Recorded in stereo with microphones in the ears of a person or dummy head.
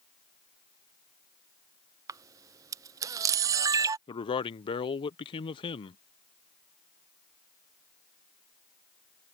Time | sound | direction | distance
2.1 | a camera shutter | 15° right (ahead or behind) | ?
4.1 | a man speaking | 30° left (ahead or behind) | ?